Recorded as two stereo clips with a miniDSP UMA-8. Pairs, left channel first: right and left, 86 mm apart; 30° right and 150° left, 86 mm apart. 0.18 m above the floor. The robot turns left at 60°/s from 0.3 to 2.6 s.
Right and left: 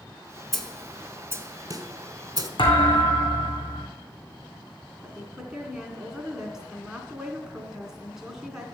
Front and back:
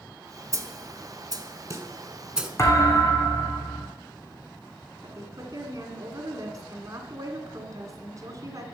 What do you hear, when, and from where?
0.5 s a snare drum: straight behind, 1.1 m; by 2.5 s 65° left, 1.1 m
2.6 s a thud: 85° right, 2.5 m
5.0 s a woman speaking: 170° left, 2 m